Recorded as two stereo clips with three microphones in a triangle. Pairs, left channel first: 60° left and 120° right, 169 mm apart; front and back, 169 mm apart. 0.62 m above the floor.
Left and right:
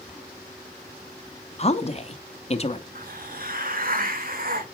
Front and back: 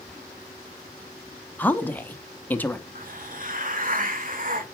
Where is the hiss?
150° right, 1.1 m.